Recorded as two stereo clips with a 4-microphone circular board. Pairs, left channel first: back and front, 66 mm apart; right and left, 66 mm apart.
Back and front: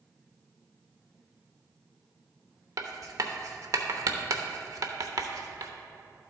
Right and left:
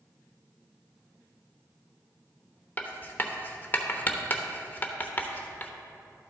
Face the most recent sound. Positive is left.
turn(degrees=-30)